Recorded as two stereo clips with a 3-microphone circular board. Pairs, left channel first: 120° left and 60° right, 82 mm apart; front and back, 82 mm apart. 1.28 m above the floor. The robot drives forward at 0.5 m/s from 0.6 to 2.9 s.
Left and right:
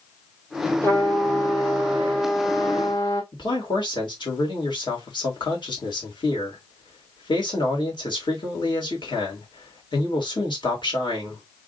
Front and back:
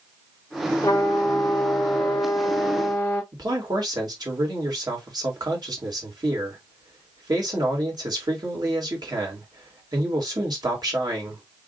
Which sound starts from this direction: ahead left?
A trumpet, at 0.8 s.